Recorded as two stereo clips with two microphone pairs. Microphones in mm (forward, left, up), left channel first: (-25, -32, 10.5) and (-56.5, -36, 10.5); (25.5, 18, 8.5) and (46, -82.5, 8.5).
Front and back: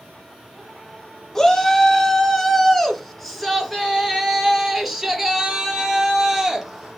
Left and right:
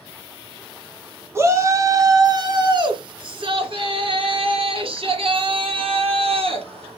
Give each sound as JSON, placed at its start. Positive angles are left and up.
{"t": 1.4, "sound": "a shout", "azimuth_deg": -50, "distance_m": 1.5}